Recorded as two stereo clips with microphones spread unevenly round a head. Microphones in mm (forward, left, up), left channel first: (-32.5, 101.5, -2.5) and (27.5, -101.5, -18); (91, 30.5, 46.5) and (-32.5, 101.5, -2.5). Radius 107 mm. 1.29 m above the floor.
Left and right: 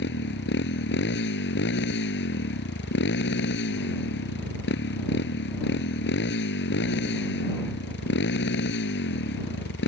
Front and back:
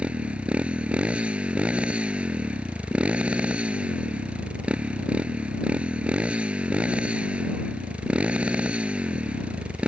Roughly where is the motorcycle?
Ahead left.